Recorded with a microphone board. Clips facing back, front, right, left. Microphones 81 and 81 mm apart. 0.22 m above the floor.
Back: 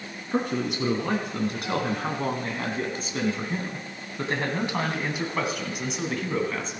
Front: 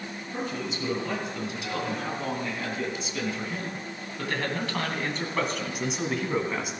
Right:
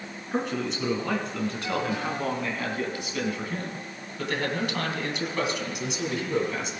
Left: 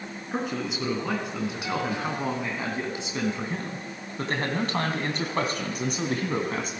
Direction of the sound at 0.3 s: 175° left.